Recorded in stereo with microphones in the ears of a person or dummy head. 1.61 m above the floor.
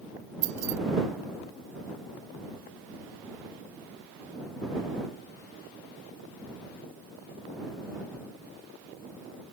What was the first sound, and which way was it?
Keys jangling, 45° right (ahead or behind).